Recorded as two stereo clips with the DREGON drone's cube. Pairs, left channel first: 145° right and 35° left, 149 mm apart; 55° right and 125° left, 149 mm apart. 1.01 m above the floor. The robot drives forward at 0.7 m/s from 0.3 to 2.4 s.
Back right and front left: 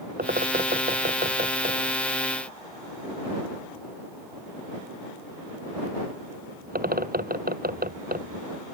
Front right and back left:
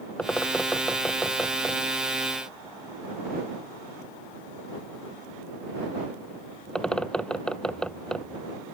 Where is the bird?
25° left; by 8.4 s 30° left.